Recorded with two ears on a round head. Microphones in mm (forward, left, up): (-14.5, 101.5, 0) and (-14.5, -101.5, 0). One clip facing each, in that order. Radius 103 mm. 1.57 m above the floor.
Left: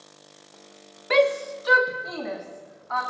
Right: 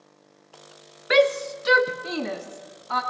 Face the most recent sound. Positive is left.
turn(degrees=-45)  # may be behind; listen again after turning